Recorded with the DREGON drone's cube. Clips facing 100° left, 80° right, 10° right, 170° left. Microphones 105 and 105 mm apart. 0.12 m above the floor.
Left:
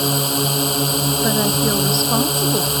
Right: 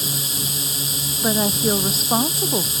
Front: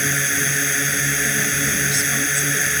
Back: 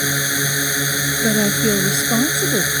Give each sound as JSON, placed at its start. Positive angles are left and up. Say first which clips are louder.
{"t": 0.0, "sound": "a drone", "louder": "left 11 dB, back 1 dB", "azimuth_deg": 95}
{"t": 1.2, "sound": "a woman speaking", "louder": "even, back 7 dB", "azimuth_deg": -165}